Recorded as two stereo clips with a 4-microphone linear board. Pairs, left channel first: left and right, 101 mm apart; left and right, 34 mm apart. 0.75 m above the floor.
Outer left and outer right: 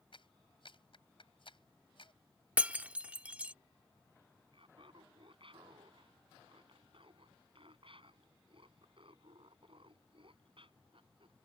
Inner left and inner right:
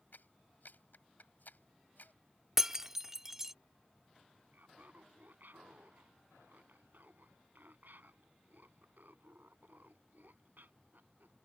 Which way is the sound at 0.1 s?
60° left (ahead or behind).